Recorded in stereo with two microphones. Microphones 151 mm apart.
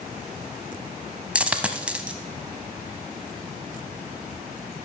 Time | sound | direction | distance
1.4 | a dropped coin | 10° right (ahead or behind) | 0.7 m